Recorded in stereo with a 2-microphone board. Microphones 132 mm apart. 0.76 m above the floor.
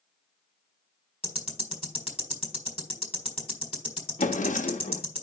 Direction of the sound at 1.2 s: 45° left (ahead or behind).